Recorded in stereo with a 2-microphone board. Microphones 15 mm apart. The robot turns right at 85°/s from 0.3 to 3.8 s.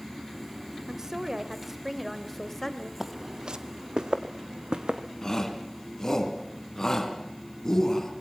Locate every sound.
0.9 s a woman speaking: 110° right, 1.7 m; by 2.9 s 60° left, 1.7 m
3.0 s footsteps: 20° right (ahead or behind), 0.8 m; by 5.1 s 80° right, 1.9 m
5.2 s a shout: 35° left (ahead or behind), 3.5 m